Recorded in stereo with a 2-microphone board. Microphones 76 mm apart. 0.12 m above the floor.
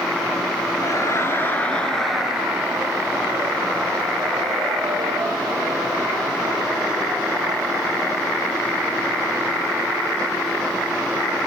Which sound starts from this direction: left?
Laughter, at 0.8 s.